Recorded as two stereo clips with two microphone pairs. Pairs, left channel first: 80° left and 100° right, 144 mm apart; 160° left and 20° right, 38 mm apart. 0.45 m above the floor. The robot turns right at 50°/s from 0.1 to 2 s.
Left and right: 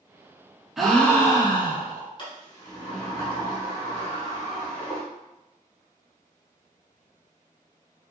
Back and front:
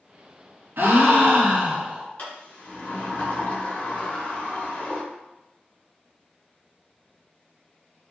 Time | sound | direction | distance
0.8 | a gasp | 15° right | 0.7 m
2.2 | a sliding door | 130° left | 0.9 m